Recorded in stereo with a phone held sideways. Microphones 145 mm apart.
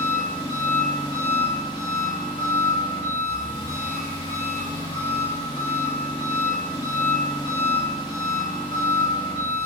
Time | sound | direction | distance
0.0 | an engine running | 30° left (ahead or behind) | 0.9 m